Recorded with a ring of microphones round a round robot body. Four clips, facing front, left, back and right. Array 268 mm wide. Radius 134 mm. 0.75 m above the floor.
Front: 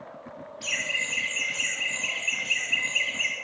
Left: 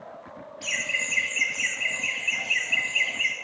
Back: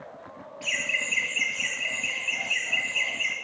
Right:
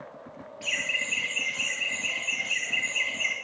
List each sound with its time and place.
0.6 s laughter: 30° left, 3.5 m; by 3.3 s 50° left, 7 m